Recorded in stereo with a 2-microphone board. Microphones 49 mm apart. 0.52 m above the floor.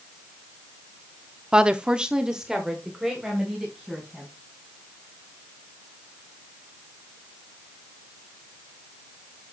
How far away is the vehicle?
I don't hear a vehicle.